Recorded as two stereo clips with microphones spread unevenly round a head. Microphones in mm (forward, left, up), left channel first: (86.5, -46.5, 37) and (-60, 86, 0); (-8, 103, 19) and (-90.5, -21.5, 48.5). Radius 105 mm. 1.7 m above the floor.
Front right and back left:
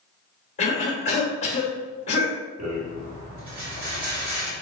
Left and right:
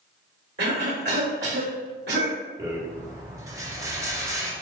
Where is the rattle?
175° right, 1.8 m.